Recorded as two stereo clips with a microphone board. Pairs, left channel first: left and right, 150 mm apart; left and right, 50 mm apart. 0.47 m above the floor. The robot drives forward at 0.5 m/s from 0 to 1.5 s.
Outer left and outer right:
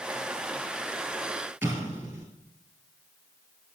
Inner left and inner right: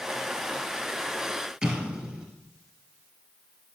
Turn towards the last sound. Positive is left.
turn(degrees=-15)  # may be behind; listen again after turning